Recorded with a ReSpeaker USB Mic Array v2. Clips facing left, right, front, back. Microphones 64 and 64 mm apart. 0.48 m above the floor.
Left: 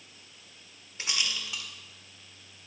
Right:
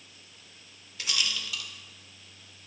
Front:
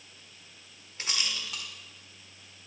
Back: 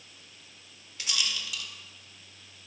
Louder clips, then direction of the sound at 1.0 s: Right 1 dB, back 1 dB; 35° left.